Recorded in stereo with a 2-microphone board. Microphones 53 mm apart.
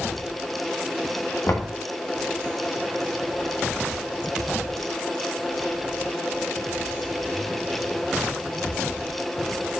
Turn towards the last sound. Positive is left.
turn(degrees=55)  # may be behind; listen again after turning